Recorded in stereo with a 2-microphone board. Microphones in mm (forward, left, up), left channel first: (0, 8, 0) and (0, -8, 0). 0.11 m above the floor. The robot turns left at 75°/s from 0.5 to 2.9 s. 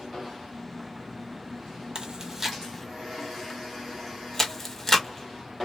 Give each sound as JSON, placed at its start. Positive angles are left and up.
{"t": 1.9, "sound": "chewing", "side_deg": -40, "distance_m": 0.9}